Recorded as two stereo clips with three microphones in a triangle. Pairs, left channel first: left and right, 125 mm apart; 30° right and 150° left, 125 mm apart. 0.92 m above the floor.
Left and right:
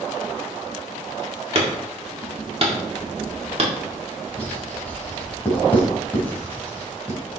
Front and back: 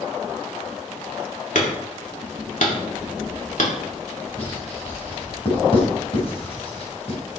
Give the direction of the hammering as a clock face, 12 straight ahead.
2 o'clock.